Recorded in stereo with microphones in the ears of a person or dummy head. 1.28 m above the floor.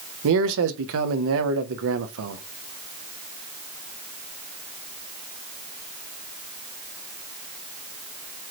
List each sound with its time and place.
0.2 s a man speaking: 65° right (ahead or behind), 0.7 m